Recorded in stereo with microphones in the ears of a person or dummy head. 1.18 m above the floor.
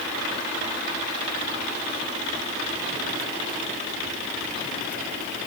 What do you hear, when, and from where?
Only background noise.